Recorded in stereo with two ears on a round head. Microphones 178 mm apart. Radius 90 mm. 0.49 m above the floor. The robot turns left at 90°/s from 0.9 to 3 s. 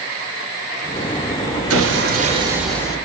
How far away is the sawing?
About 3 m.